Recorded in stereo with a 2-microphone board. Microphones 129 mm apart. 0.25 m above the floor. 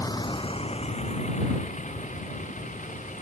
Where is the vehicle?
25° left (ahead or behind); by 3.2 s 75° left (ahead or behind).